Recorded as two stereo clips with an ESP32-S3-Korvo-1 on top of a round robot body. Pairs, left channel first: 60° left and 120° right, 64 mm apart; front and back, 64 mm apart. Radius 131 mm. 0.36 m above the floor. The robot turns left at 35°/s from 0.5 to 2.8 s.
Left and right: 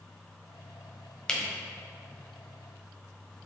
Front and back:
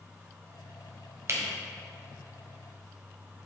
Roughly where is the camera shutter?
Behind left.